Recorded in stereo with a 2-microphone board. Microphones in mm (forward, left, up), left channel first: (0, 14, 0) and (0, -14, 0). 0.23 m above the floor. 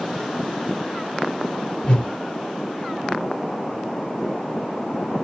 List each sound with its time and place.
1.8 s a whoosh: 35° left (ahead or behind), 2 m